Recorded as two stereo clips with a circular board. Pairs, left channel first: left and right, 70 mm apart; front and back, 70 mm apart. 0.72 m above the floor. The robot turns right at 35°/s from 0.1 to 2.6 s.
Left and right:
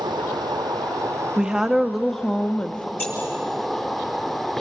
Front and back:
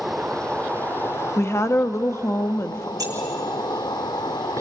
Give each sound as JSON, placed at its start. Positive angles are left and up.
{"t": 0.0, "sound": "an insect", "azimuth_deg": -90, "distance_m": 0.8}
{"t": 1.4, "sound": "a woman speaking", "azimuth_deg": -20, "distance_m": 1.0}
{"t": 3.0, "sound": "keys jangling", "azimuth_deg": 145, "distance_m": 9.5}